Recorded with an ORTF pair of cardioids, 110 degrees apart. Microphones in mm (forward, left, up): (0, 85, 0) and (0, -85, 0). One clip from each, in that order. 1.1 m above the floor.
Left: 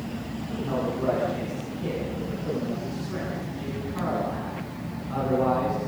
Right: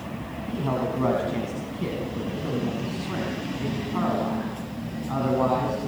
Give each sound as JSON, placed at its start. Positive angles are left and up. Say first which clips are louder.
{"t": 0.5, "sound": "a man speaking", "louder": "right 2 dB", "azimuth_deg": -65, "distance_m": 9.5}